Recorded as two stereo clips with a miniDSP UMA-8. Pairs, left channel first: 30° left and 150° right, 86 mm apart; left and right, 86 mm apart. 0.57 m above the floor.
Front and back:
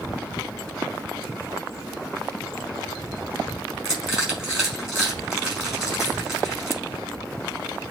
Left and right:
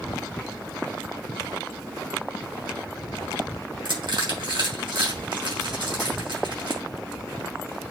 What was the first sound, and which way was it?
Crushing, 65° right.